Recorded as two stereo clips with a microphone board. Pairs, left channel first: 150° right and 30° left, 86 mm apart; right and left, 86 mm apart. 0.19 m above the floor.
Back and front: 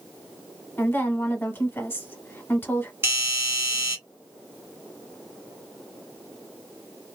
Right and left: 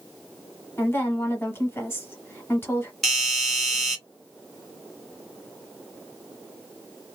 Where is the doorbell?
Straight ahead, 1.8 m.